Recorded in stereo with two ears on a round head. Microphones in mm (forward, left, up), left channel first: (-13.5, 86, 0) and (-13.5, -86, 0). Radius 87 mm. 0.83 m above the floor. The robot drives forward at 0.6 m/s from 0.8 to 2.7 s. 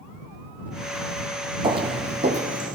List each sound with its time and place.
1.6 s footsteps: 25° right (ahead or behind), 1.1 m; by 2.8 s 45° right (ahead or behind), 1.9 m